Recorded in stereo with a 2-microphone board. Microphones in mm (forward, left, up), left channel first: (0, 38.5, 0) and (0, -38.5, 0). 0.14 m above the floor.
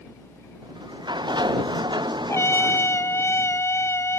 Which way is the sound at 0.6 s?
80° right.